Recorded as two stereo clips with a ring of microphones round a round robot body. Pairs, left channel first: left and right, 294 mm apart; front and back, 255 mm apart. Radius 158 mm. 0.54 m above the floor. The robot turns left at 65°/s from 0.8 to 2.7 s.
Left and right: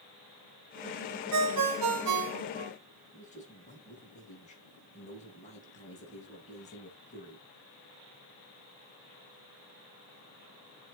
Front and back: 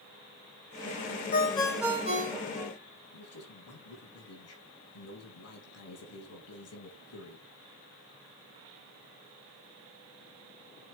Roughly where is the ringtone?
Ahead right.